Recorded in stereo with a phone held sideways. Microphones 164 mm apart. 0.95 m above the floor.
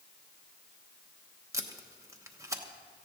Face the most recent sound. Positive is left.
turn(degrees=-20)  # may be behind; listen again after turning